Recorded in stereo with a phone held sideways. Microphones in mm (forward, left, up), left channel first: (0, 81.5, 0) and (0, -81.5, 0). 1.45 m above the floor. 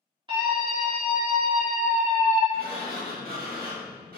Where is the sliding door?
70° right (ahead or behind), 1.2 m.